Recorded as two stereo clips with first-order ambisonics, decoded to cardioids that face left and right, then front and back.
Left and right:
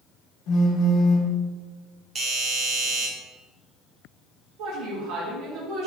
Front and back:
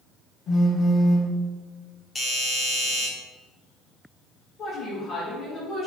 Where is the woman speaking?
65° right, 1.7 m.